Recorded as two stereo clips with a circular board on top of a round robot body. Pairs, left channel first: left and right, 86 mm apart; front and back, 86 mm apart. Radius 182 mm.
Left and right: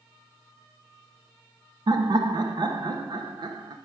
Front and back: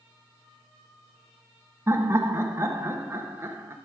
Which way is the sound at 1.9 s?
120° right.